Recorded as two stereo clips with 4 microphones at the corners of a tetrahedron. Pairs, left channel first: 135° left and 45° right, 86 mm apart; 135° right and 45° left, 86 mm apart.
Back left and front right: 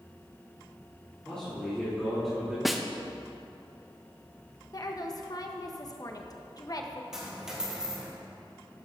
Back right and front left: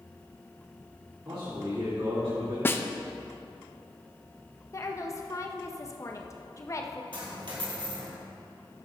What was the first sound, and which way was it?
A man speaking, 60° left.